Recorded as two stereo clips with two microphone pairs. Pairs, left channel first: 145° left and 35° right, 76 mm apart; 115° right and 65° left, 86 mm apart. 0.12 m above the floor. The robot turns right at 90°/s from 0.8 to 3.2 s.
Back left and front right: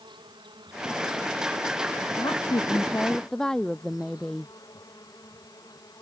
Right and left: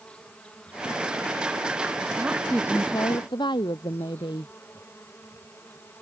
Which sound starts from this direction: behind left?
A woman speaking, at 2.2 s.